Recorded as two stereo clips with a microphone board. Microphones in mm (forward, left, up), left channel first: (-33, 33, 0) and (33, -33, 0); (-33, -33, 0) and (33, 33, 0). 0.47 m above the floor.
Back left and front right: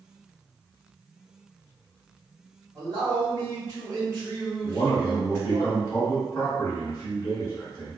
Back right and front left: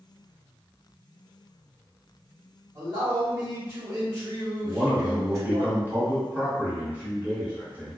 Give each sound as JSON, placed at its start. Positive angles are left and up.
{"t": 2.8, "sound": "a man speaking", "azimuth_deg": -10, "distance_m": 1.5}
{"t": 4.6, "sound": "a man speaking", "azimuth_deg": 100, "distance_m": 1.3}